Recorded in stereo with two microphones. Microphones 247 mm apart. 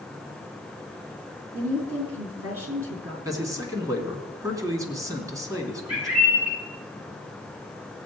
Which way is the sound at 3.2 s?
15° right (ahead or behind).